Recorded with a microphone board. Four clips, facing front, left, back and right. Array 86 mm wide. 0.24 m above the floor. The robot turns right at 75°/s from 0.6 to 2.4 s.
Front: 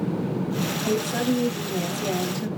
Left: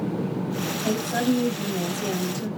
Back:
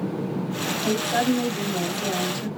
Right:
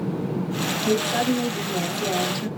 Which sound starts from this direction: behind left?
A woman speaking, at 0.8 s.